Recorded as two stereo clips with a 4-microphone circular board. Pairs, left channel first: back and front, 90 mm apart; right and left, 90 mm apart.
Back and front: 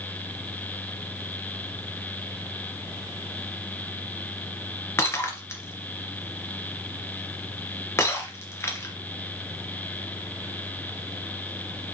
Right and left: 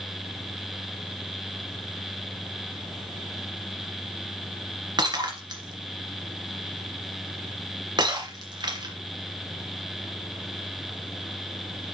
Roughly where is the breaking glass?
Behind left.